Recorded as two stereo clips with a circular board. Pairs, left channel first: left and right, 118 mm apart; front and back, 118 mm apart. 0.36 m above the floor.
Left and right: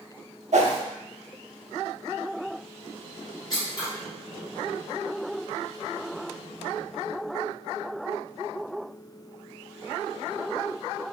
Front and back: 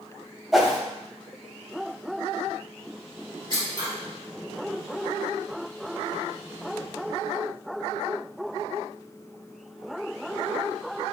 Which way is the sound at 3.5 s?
135° left.